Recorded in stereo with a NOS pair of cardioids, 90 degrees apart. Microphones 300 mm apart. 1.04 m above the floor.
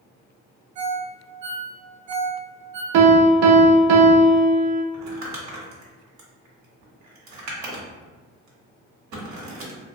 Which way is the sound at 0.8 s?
70° right.